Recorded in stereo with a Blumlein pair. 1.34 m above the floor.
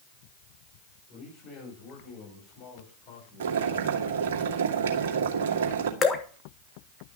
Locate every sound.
1.1 s a man speaking: 35° left, 6 m; by 4.4 s 50° left, 8.5 m
3.4 s boiling: 55° right, 2.5 m
6.0 s dripping: 20° left, 1.6 m